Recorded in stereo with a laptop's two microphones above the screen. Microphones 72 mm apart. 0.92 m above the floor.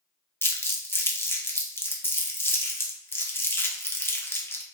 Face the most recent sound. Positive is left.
turn(degrees=35)  # may be behind; listen again after turning